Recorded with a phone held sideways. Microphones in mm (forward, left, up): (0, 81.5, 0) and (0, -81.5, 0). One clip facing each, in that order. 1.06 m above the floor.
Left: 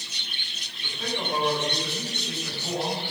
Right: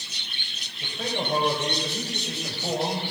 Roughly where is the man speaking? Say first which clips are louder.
Right 2 dB; right.